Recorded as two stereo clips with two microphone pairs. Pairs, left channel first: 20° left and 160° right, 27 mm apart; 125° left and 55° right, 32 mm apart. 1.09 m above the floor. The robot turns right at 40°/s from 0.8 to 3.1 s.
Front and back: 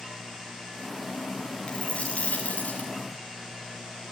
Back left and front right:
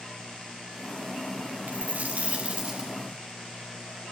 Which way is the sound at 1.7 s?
30° right.